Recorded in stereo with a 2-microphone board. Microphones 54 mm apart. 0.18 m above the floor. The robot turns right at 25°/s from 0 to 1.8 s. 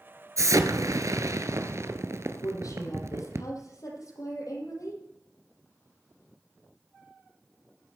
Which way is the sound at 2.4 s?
80° left.